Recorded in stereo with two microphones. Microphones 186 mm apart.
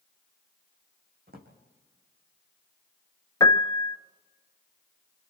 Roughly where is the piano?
Left.